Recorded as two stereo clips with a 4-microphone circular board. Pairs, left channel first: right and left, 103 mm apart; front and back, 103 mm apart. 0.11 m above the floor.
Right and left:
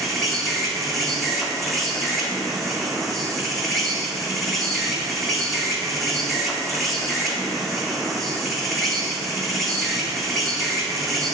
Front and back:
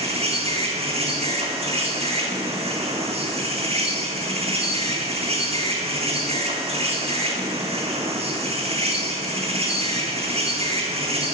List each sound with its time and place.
0.0 s an insect: straight behind, 1.1 m